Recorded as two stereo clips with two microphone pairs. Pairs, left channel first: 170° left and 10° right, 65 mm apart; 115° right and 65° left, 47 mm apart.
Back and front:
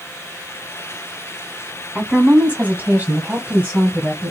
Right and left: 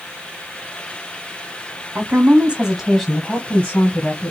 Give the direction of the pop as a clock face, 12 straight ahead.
No pop in this recording.